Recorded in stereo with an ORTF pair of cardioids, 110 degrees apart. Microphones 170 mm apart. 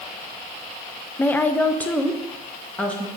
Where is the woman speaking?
10° left, 0.6 m.